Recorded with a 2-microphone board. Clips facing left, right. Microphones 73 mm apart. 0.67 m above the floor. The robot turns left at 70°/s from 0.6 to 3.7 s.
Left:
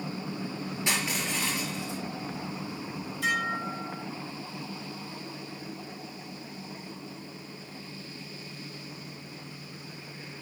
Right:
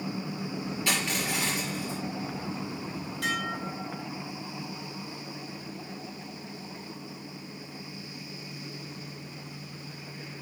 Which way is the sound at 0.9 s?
20° left.